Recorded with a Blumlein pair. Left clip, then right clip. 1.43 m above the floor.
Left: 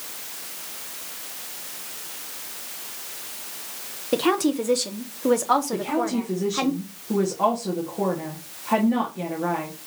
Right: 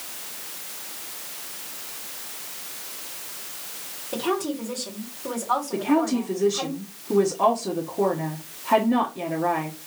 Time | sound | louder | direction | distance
4.1 | a woman speaking | left 5 dB | 30° left | 1.1 m
5.7 | a woman speaking | right 2 dB | 10° right | 1.4 m